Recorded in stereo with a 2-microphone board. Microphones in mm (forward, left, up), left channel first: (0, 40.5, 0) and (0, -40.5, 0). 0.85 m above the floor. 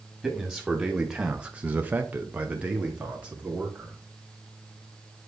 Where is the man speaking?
Centre (ahead or behind), 1.6 m; by 4.0 s 10° right (ahead or behind), 2.5 m.